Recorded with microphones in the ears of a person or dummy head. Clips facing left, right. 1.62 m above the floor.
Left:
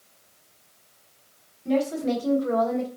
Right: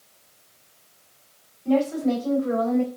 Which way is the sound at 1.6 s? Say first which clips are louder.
Right 3 dB; 20° left (ahead or behind).